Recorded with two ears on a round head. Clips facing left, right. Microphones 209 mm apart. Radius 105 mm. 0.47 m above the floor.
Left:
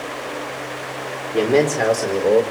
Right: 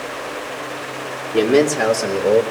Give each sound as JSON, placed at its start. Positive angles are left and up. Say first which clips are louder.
{"t": 1.3, "sound": "a man speaking", "louder": "right 2 dB", "side_deg": -20, "distance_m": 1.5}